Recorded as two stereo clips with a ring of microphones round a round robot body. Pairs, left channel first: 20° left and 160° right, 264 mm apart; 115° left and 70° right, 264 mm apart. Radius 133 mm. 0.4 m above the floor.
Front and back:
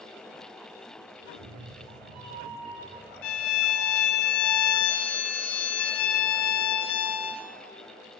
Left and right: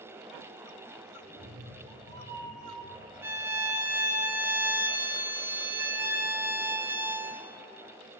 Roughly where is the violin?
Ahead.